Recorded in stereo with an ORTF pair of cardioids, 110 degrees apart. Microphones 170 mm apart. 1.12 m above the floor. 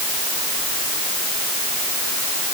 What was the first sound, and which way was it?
Only background noise.